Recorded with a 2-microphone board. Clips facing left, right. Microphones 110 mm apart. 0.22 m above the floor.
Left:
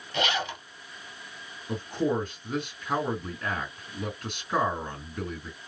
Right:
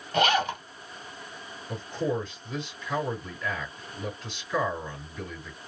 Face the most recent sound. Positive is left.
turn(degrees=55)  # may be behind; listen again after turning